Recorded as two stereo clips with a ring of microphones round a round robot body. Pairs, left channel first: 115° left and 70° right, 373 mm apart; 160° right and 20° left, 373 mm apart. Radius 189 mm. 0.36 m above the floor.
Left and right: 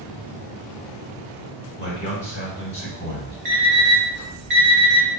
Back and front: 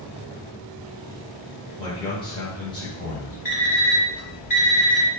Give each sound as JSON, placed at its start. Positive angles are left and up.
{"t": 1.8, "sound": "a man speaking", "azimuth_deg": 145, "distance_m": 1.3}
{"t": 3.5, "sound": "an alarm clock", "azimuth_deg": -85, "distance_m": 1.3}